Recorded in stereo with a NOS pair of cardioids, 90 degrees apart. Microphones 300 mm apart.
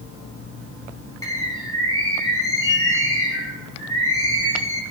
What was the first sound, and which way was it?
A bird, 10° left.